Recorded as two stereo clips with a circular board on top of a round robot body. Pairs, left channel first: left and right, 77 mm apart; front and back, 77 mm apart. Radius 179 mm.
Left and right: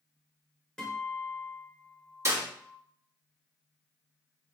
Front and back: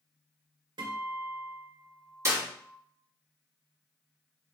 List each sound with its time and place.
0.8 s a guitar: 170° left, 1.7 m
2.2 s a clap: 135° right, 1.8 m